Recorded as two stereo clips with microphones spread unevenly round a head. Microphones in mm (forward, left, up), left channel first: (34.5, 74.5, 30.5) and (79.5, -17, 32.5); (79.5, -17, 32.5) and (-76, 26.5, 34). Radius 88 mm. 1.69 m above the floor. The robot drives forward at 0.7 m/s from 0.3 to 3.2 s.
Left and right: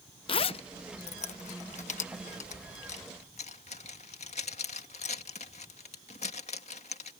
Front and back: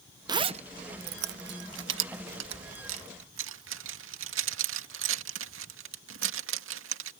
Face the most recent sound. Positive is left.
turn(degrees=165)